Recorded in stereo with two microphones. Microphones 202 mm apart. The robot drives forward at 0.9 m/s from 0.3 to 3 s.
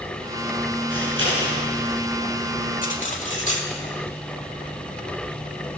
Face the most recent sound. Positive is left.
turn(degrees=40)  # may be behind; listen again after turning